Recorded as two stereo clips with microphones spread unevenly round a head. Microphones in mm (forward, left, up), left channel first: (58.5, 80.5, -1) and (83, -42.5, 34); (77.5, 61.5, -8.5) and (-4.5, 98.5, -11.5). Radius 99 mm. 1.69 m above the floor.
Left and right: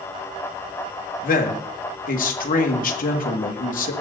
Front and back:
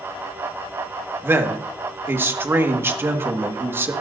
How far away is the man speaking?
About 1.8 m.